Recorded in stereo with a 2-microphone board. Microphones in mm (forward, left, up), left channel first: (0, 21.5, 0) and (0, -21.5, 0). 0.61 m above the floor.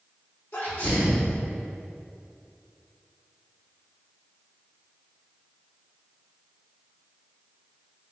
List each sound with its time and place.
0.5 s a sneeze: 55° left (ahead or behind), 1.6 m